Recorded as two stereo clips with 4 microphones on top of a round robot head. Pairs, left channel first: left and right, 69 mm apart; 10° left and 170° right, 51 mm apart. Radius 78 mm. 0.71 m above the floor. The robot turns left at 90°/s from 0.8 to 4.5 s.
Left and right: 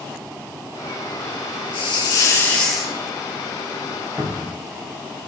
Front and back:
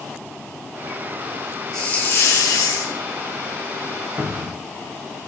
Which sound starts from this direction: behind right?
A cupboard door, at 4.2 s.